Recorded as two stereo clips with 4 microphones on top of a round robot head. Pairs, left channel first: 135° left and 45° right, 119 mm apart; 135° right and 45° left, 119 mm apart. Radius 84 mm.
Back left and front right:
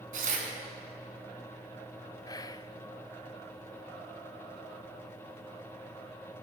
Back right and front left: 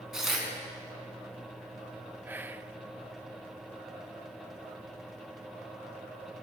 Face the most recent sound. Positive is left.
turn(degrees=110)